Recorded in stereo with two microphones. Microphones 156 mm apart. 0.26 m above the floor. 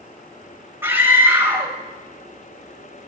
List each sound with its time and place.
0.8 s a scream: 15° right (ahead or behind), 1.6 m